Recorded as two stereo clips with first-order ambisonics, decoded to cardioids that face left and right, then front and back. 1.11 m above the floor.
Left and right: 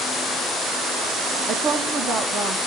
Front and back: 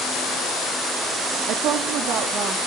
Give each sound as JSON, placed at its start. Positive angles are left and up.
{"t": 1.5, "sound": "a woman speaking", "azimuth_deg": -145, "distance_m": 0.7}